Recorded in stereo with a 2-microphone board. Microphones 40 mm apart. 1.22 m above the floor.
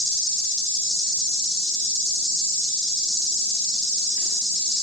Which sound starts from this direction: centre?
An insect, at 0.0 s.